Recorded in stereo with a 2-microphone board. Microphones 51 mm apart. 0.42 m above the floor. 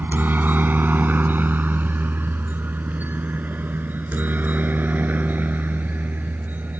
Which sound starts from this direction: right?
A helicopter, at 0.0 s.